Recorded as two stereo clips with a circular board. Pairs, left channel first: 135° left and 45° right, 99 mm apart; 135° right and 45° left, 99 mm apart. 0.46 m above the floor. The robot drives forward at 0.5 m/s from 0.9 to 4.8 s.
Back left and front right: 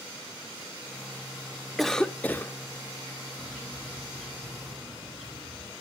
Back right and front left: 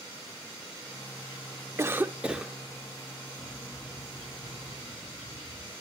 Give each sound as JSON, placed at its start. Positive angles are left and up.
{"t": 1.8, "sound": "a cough", "azimuth_deg": 50, "distance_m": 0.7}
{"t": 3.4, "sound": "a bird", "azimuth_deg": -70, "distance_m": 7.0}